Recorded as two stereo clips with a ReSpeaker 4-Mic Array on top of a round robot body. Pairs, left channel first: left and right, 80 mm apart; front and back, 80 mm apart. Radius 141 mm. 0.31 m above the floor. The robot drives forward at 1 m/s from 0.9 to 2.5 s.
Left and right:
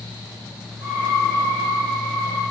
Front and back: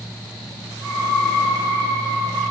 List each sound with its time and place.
Only background noise.